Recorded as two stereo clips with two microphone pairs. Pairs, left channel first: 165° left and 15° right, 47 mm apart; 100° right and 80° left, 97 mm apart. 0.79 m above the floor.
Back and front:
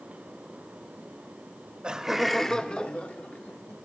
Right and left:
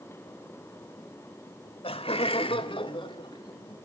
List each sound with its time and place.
1.8 s laughter: 90° right, 1.4 m; by 3.8 s 145° right, 3 m